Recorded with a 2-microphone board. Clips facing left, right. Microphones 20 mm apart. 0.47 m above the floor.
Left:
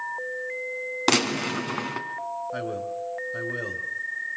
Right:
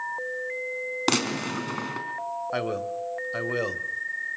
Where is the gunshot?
10° left (ahead or behind), 2.5 m.